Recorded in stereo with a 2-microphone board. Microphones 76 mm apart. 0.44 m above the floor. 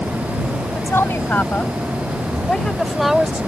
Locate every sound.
0.8 s a woman speaking: 30° left (ahead or behind); by 3.5 s 15° right (ahead or behind)